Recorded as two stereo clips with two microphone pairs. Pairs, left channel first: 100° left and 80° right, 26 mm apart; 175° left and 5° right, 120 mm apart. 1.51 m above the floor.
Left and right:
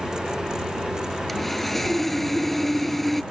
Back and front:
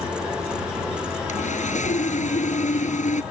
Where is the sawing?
175° left.